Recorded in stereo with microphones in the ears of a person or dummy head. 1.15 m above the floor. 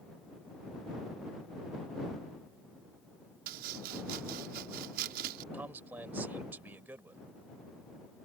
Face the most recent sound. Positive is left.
turn(degrees=-5)  # may be behind; listen again after turning